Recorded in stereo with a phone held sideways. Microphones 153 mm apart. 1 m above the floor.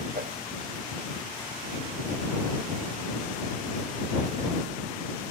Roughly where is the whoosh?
Right.